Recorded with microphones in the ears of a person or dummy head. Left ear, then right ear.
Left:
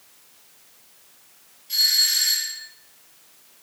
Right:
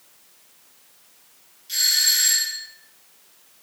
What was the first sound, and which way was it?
A doorbell, 25° right (ahead or behind).